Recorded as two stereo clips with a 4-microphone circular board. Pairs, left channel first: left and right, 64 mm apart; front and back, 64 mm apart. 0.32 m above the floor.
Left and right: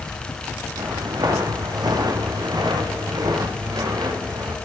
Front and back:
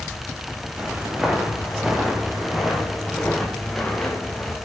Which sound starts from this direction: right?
Footsteps, at 0.8 s.